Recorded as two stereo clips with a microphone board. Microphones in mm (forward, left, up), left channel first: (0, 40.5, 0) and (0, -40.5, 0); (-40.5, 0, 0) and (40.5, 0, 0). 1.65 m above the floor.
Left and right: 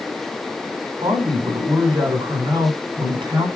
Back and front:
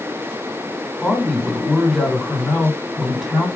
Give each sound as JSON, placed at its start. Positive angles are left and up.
{"t": 1.0, "sound": "a man speaking", "azimuth_deg": -90, "distance_m": 8.0}